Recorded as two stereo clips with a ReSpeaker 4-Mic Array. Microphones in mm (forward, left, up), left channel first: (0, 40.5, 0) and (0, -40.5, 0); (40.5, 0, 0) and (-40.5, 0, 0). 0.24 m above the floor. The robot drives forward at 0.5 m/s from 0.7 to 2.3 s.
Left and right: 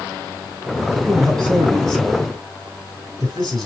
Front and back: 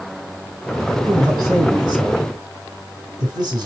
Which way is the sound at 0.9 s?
165° left.